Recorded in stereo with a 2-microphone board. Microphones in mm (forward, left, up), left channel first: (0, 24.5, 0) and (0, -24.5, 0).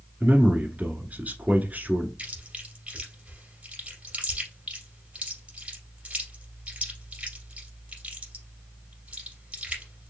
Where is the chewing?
25° right (ahead or behind), 3 m.